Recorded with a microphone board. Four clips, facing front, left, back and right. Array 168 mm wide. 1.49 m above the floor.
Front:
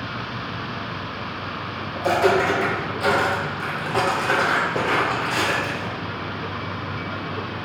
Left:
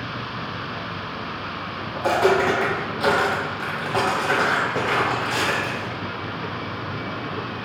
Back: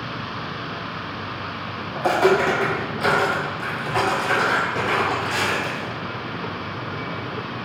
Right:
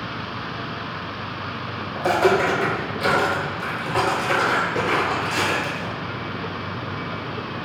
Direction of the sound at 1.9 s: 145° left.